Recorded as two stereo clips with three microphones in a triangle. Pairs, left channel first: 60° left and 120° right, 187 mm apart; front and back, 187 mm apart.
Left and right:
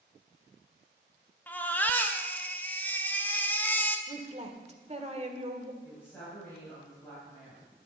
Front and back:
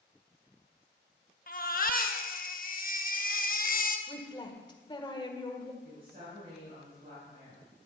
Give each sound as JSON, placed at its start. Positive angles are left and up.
{"t": 1.5, "sound": "a baby crying", "azimuth_deg": -20, "distance_m": 0.8}
{"t": 4.1, "sound": "a woman speaking", "azimuth_deg": -65, "distance_m": 1.6}
{"t": 5.8, "sound": "a woman speaking", "azimuth_deg": 140, "distance_m": 4.5}